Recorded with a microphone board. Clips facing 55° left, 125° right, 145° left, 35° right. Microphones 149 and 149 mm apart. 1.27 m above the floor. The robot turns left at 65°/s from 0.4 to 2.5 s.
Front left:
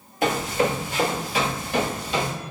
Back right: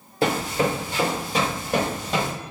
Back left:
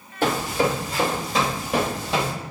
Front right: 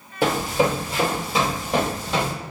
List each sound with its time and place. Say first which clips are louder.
0.2 s running footsteps: even, front right 1 dB; 105° right, 1.5 m; by 2.3 s 160° right, 2 m